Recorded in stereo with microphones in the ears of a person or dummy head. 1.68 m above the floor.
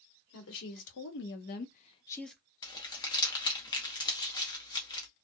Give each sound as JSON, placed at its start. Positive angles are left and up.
{"t": 0.3, "sound": "a woman speaking", "side_deg": 85, "distance_m": 1.3}
{"t": 2.6, "sound": "crumpling", "side_deg": 15, "distance_m": 0.7}